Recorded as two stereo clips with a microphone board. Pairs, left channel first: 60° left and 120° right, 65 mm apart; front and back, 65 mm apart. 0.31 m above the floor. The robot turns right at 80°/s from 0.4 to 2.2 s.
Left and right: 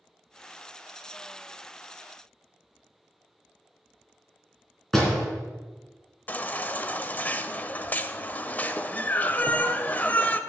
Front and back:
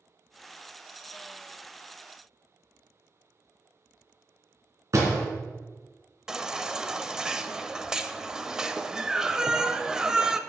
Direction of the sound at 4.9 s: 145° left.